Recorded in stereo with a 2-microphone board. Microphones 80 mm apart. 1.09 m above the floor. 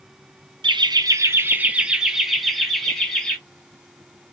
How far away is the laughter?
About 0.6 m.